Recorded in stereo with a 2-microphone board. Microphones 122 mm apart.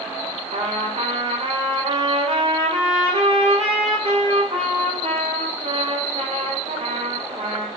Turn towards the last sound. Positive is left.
turn(degrees=-50)  # may be behind; listen again after turning